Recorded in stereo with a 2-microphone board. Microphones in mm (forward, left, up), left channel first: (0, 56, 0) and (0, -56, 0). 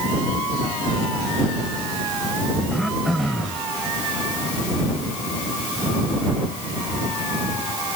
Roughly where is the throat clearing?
Centre.